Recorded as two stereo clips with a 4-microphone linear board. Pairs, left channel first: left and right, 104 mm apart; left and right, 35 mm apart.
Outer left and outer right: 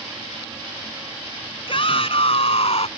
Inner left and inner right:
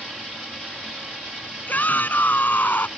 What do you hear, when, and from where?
1.7 s a shout: 60° left (ahead or behind); by 2.9 s 70° left (ahead or behind)